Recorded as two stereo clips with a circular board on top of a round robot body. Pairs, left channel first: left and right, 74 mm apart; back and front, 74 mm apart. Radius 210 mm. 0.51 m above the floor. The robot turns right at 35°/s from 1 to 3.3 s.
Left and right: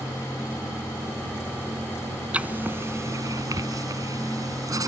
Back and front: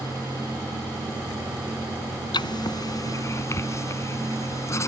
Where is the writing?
160° right; by 4.9 s 130° right.